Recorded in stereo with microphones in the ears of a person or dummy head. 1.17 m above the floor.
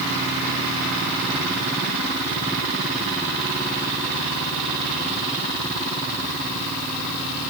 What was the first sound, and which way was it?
Only background noise.